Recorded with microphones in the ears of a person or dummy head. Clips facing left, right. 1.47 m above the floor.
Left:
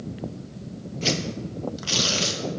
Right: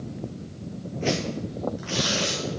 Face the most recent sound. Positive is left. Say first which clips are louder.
# right 2 dB
turn(degrees=55)  # may be behind; listen again after turning